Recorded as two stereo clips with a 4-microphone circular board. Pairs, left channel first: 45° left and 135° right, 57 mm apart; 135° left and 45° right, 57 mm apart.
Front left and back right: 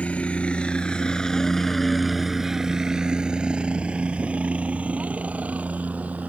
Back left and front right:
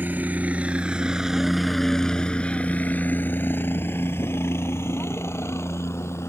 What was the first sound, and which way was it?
A helicopter, 10° right.